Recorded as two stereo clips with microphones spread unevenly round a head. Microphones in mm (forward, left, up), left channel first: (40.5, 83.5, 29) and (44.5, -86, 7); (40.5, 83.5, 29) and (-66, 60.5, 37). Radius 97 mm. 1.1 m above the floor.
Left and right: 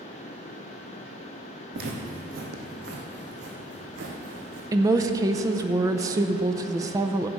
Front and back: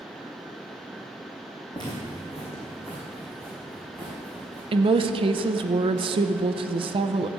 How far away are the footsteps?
About 2.5 m.